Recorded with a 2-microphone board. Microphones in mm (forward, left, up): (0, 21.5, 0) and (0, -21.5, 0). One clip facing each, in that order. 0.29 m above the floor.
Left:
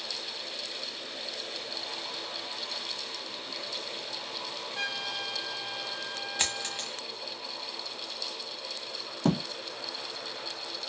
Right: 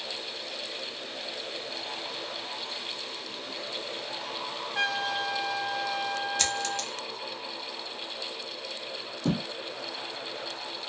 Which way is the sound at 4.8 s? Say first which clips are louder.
Right 7 dB; 75° right (ahead or behind).